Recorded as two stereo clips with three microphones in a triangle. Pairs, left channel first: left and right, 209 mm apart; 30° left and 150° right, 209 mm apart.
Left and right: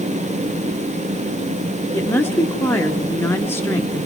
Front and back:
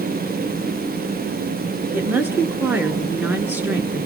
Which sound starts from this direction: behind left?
A woman speaking, at 1.9 s.